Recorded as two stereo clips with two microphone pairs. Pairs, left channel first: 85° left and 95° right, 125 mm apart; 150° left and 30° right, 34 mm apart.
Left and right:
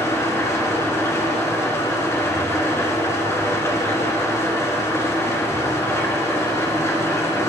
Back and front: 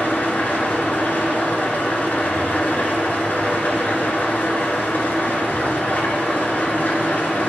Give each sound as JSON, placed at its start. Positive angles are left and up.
{"t": 0.0, "sound": "an engine running", "azimuth_deg": 150, "distance_m": 1.8}